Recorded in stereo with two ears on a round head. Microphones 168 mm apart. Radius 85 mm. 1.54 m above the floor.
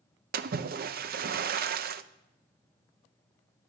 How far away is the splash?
About 0.6 m.